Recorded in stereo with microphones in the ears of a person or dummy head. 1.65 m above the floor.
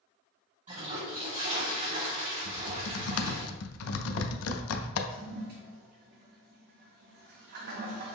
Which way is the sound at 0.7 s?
40° right (ahead or behind).